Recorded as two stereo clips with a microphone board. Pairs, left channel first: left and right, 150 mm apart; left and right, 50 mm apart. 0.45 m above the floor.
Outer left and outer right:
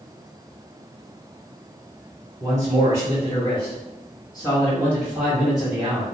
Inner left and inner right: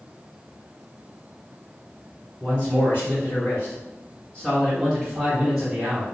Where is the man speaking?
55° left (ahead or behind), 2.0 m; by 6.0 s 20° right (ahead or behind), 1.3 m.